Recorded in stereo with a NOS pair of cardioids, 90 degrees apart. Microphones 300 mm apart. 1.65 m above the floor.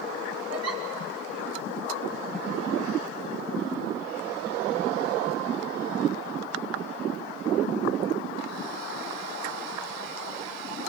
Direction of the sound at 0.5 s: 60° right.